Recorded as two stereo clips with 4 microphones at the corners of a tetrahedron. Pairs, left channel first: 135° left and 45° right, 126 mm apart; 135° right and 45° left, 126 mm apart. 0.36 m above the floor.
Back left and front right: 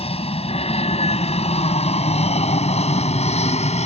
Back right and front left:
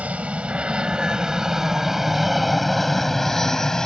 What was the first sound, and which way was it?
An aircraft, 120° left.